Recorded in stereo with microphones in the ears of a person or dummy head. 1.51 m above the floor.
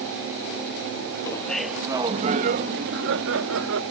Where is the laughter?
15° left (ahead or behind); by 3.8 s 80° right.